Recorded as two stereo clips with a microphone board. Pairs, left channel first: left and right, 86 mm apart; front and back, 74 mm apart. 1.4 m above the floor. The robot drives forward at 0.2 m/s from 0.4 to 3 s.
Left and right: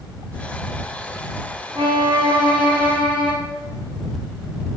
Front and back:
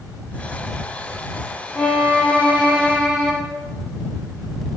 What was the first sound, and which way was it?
A violin, 80° right.